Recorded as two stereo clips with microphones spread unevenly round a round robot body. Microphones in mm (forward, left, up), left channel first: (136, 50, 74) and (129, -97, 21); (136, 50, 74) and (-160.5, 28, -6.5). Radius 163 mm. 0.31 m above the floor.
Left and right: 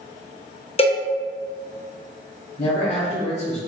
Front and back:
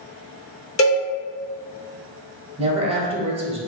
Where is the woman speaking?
140° left, 1.2 m.